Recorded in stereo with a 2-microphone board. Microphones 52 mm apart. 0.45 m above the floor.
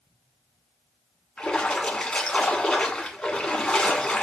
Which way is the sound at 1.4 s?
20° left (ahead or behind).